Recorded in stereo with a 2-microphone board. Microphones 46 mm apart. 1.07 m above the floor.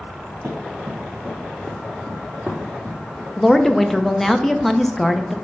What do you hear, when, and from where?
0.4 s running footsteps: 40° right (ahead or behind), 2.5 m; by 3.3 s centre (ahead or behind), 3.5 m
3.4 s a woman speaking: 5° left (ahead or behind), 0.6 m